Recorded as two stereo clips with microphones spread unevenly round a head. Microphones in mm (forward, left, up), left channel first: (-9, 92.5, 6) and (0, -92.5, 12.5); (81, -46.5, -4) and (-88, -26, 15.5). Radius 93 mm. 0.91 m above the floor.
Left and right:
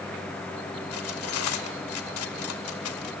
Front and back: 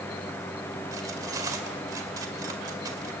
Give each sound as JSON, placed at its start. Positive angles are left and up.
{"t": 0.9, "sound": "cutlery clinking", "azimuth_deg": 100, "distance_m": 1.9}